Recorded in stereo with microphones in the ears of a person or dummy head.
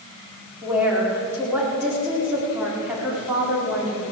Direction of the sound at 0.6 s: 5° right (ahead or behind).